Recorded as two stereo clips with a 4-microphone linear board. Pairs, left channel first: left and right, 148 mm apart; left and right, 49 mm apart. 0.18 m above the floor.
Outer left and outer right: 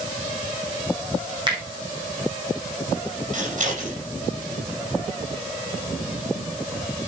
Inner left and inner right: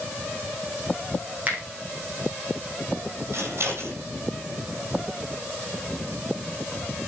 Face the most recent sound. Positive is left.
turn(degrees=-55)  # may be behind; listen again after turning